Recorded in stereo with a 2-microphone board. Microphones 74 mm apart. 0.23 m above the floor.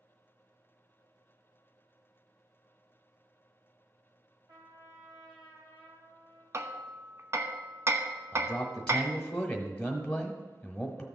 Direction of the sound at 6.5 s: 40° right (ahead or behind).